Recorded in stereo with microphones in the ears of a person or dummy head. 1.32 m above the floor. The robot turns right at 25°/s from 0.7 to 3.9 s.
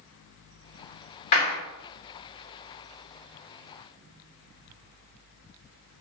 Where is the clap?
45° left (ahead or behind), 1.4 m; by 1.6 s 50° left (ahead or behind), 1.4 m.